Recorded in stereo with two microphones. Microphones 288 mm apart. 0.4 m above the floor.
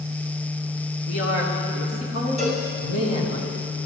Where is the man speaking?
55° left (ahead or behind), 4 m.